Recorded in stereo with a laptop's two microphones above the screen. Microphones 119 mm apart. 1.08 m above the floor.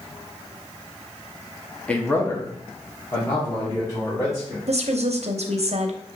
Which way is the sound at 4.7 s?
65° right (ahead or behind).